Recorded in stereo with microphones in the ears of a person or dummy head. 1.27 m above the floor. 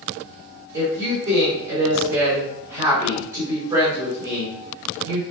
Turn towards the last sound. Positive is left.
turn(degrees=-25)  # may be behind; listen again after turning